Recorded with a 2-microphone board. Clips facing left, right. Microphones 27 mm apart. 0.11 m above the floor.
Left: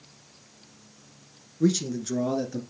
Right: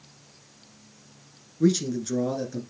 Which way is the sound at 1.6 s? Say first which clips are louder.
Right 2 dB; 10° right (ahead or behind).